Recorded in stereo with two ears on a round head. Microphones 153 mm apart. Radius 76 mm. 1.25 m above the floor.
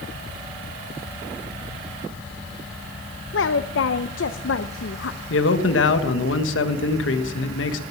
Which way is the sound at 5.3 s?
80° left.